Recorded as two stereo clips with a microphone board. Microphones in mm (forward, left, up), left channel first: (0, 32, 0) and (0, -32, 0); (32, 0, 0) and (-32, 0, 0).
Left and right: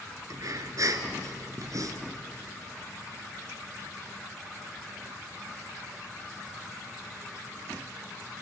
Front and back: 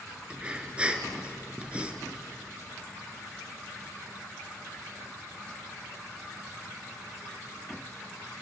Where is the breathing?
110° right, 1.9 m.